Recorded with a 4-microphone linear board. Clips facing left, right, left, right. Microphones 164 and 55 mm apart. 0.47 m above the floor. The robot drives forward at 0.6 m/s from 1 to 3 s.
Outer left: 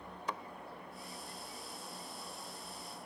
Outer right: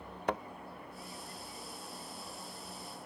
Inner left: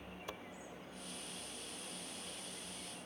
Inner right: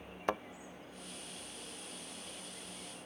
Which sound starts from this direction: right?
A thud, at 0.3 s.